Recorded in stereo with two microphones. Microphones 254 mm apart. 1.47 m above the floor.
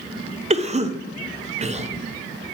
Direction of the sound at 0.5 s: 25° right (ahead or behind).